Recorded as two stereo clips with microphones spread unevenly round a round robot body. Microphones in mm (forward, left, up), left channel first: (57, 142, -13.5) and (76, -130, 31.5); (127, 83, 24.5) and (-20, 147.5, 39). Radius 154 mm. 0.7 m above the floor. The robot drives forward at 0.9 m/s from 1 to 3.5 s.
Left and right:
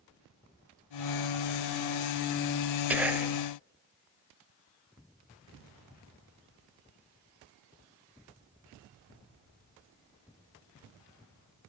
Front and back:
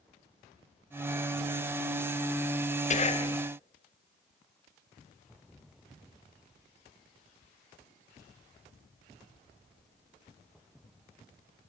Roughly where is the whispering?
Ahead.